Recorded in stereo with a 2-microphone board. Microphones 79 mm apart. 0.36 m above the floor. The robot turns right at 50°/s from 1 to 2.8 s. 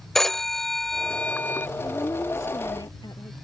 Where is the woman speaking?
20° left; by 3.3 s 70° left.